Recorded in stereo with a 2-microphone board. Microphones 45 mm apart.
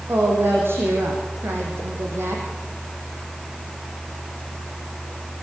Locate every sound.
0.1 s a woman speaking: 60° right (ahead or behind), 7.5 m; by 2.5 s 70° right (ahead or behind), 5.5 m